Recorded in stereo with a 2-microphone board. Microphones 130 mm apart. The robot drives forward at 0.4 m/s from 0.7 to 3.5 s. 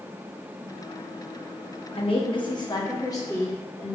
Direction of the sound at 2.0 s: 50° left (ahead or behind).